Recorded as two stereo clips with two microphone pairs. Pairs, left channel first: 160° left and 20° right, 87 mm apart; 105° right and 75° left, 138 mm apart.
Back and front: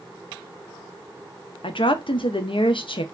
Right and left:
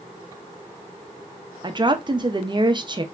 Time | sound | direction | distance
1.6 | a woman speaking | 135° left | 0.6 m